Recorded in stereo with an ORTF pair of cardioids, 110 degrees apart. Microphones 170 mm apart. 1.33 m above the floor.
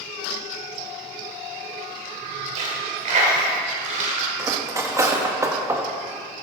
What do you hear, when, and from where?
2.6 s a dropped coin: 50° right, 2.5 m
4.4 s cutlery clinking: 20° right, 1.3 m